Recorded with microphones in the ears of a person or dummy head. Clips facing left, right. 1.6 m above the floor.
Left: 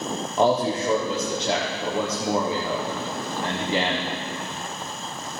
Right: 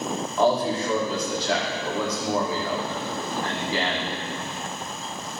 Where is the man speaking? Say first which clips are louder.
Left 1 dB; 20° left (ahead or behind), 0.9 m.